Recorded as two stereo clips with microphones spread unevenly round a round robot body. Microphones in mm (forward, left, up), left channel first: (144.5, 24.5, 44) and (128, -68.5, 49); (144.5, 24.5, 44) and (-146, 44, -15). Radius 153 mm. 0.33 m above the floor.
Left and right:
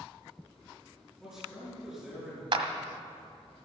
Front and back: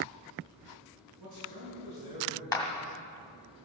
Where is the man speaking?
170° left, 4.5 m.